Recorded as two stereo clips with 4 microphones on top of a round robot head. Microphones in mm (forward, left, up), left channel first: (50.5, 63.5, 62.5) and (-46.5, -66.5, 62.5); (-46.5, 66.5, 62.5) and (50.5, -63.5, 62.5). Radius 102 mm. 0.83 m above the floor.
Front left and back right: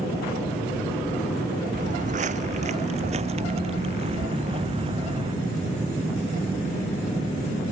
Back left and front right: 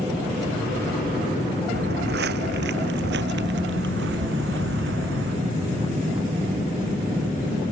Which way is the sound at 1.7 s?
85° right.